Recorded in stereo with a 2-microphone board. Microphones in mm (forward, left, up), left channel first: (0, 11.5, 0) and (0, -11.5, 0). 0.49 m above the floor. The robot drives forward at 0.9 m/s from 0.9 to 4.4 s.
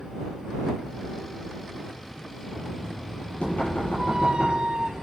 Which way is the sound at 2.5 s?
60° left (ahead or behind).